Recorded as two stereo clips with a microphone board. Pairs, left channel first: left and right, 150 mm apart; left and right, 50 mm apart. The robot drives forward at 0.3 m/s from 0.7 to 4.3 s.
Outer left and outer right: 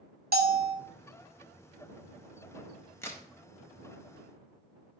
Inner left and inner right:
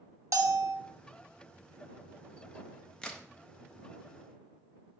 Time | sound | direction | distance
0.3 | a bell | 80° right | 0.6 m
3.0 | a crack | 15° left (ahead or behind) | 0.6 m